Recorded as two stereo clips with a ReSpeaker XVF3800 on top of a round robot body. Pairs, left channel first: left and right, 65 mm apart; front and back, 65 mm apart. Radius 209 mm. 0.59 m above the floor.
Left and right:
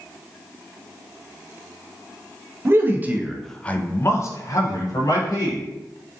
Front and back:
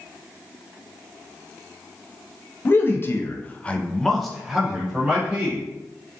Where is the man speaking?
50° right, 0.7 m; by 5.7 s 105° left, 1.2 m.